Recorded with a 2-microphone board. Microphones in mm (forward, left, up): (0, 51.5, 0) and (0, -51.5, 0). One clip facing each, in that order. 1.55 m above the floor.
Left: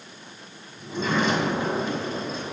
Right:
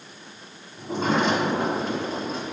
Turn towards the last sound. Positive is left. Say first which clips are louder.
# right 2 dB
turn(degrees=-85)